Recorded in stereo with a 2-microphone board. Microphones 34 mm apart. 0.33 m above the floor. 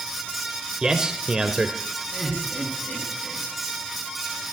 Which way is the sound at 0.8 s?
20° right (ahead or behind).